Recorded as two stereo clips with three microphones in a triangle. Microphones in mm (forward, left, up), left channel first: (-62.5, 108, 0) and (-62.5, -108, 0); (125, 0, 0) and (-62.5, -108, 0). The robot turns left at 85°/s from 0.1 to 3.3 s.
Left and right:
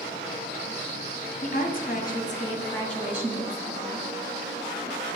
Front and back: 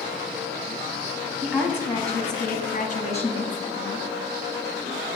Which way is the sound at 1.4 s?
135° left.